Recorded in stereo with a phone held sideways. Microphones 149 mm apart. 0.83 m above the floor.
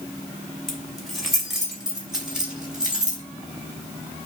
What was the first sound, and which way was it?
Keys jangling, 5° left (ahead or behind).